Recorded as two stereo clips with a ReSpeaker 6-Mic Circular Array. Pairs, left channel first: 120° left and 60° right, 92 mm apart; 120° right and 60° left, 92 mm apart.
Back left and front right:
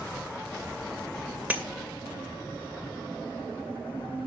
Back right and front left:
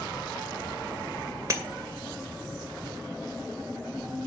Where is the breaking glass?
10° left, 2 m.